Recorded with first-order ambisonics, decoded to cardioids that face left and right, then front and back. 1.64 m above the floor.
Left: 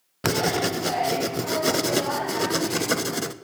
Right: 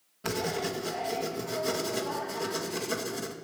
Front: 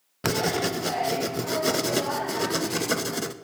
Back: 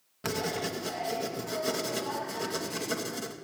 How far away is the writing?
About 0.7 m.